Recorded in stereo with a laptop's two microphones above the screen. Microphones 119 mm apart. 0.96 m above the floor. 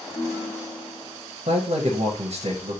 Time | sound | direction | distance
0.1 | a ringtone | 35° left (ahead or behind) | 1.1 m
1.5 | a man speaking | 60° right (ahead or behind) | 0.7 m